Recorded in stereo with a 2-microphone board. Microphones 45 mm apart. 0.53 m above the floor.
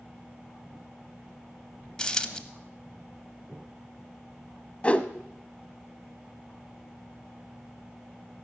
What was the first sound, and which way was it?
A dropped coin, 15° left (ahead or behind).